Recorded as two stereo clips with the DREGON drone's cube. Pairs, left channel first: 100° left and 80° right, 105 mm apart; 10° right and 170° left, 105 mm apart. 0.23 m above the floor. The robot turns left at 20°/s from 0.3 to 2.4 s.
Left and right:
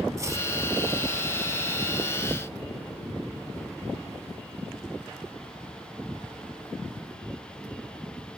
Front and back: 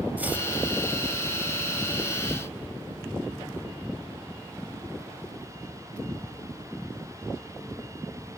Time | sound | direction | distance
0.2 | chopping | 120° right | 0.6 m